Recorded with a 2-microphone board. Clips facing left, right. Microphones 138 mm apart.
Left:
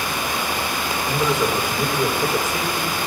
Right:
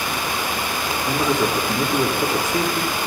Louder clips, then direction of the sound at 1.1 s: Right 1 dB; 35° right (ahead or behind).